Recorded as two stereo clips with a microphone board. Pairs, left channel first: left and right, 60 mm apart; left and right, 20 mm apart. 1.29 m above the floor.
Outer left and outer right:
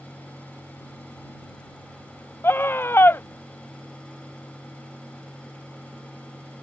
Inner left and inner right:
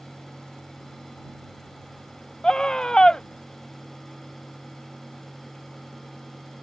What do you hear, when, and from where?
2.4 s a scream: 40° left (ahead or behind)